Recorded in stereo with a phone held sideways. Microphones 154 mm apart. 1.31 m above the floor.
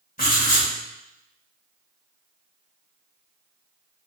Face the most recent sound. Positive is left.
turn(degrees=70)  # may be behind; listen again after turning